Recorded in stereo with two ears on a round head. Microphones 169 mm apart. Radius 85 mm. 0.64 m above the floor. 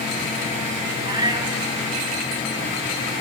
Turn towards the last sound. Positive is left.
turn(degrees=-25)  # may be behind; listen again after turning